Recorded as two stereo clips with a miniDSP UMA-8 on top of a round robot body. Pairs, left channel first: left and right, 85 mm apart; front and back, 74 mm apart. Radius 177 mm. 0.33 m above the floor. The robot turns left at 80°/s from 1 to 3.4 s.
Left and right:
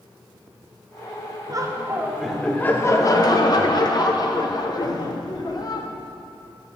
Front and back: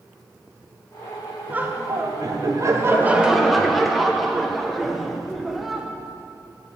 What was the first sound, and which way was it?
Laughter, 115° right.